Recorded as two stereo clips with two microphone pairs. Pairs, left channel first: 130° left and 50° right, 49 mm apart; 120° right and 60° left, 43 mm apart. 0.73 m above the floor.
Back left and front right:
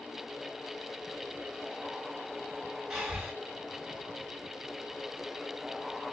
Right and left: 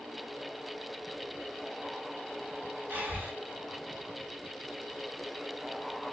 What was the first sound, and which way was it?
Breathing, 35° left.